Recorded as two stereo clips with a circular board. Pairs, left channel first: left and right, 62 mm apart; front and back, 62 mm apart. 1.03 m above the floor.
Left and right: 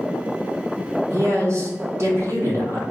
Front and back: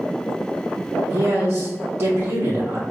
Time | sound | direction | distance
1.1 | a man speaking | 130° right | 1.8 m